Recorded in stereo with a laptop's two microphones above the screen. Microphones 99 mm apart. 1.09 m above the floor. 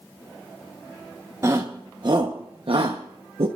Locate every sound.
1.4 s a shout: 35° right (ahead or behind), 1.1 m; by 3.5 s 85° right, 1.0 m